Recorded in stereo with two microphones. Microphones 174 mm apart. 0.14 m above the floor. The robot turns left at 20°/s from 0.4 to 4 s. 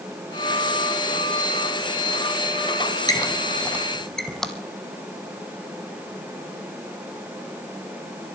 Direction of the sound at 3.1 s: 20° left (ahead or behind).